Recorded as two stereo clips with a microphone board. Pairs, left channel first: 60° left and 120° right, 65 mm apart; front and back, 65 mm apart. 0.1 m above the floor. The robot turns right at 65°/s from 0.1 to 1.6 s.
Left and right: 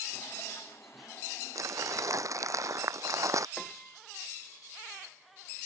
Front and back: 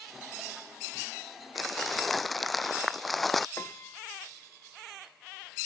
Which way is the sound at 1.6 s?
90° right.